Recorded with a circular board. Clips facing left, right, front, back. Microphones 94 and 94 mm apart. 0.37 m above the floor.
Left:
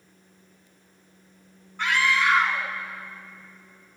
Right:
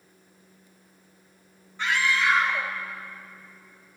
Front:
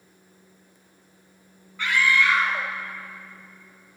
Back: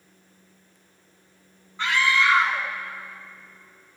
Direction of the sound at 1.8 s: 115° left.